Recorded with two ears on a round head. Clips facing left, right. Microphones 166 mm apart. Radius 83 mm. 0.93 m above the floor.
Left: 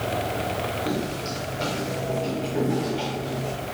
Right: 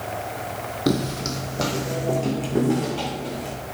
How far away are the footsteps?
About 1.5 m.